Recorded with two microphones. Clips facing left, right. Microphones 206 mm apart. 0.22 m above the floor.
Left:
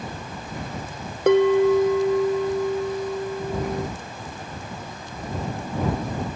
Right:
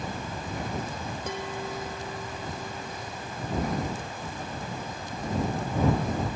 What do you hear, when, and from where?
1.3 s a bell: 70° left (ahead or behind)